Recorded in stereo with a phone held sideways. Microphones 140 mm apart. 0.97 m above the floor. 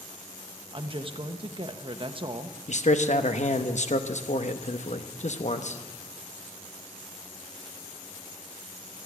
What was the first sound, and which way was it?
A woman speaking, 40° right (ahead or behind).